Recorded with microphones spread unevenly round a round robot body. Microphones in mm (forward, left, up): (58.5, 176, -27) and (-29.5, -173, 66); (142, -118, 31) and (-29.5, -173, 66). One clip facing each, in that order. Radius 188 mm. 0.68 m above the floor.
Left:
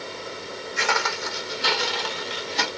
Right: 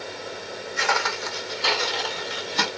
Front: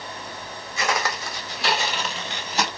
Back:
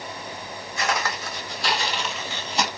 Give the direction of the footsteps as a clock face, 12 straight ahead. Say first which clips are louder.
Even, front 1 dB; 11 o'clock.